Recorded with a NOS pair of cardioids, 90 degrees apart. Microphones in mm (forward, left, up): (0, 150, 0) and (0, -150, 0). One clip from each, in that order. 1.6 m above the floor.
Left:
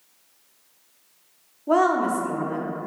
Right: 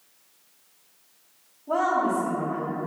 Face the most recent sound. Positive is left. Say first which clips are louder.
# left 3 dB
turn(degrees=70)